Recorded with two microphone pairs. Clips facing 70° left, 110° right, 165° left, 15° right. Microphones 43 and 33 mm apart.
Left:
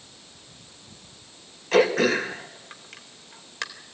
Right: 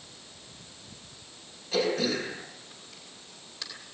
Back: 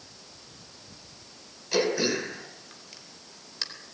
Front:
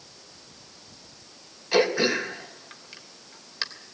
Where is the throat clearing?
50° left, 3 m.